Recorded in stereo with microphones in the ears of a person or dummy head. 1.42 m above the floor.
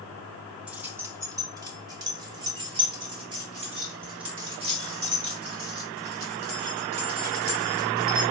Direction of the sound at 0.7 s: 5° right (ahead or behind).